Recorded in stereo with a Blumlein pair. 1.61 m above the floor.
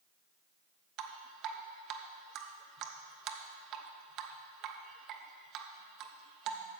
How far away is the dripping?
About 0.9 m.